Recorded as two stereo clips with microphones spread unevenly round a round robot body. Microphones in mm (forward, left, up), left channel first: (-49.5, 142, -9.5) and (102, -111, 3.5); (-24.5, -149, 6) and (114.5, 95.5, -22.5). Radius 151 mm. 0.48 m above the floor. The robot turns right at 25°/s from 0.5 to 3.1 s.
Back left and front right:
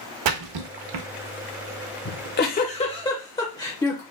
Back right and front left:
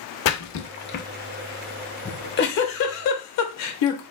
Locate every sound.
0.2 s a splash: 75° right, 0.6 m; by 1.1 s 60° right, 0.6 m
2.0 s a giggle: 170° left, 0.5 m; by 4.0 s 160° right, 0.5 m